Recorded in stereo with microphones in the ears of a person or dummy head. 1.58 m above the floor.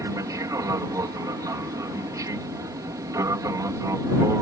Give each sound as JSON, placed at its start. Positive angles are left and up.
{"t": 0.0, "sound": "an aircraft", "side_deg": -20}